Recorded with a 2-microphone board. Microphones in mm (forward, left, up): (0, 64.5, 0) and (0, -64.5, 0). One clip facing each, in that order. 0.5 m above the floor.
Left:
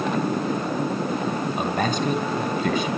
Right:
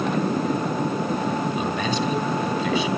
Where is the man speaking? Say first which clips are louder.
Even; 50° left (ahead or behind), 3.5 m.